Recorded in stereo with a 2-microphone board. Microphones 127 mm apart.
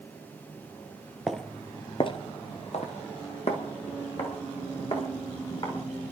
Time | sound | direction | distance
1.3 | footsteps | centre (ahead or behind) | 1.0 m